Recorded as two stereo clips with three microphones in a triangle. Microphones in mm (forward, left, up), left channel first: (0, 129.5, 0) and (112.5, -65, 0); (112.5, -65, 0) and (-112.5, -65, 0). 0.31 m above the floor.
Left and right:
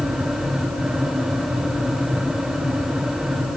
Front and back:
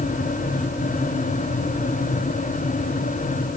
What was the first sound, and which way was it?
Only background noise.